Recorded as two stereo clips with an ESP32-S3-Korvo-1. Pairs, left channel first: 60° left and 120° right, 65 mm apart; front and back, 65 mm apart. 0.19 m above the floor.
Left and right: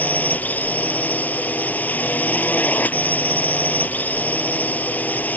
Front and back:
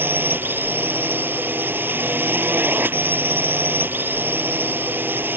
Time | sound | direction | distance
0.0 | a drone | 125° left | ?